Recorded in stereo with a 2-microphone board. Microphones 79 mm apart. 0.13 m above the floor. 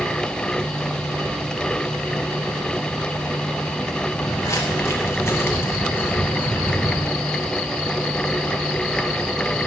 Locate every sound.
4.1 s footsteps: 40° left (ahead or behind), 5 m; by 7.1 s 20° left (ahead or behind), 4 m